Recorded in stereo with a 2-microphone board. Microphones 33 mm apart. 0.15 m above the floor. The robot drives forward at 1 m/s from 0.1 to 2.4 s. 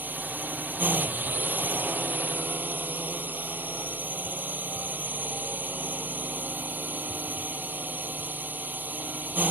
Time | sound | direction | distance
0.0 | a drone | 70° right (ahead or behind) | ?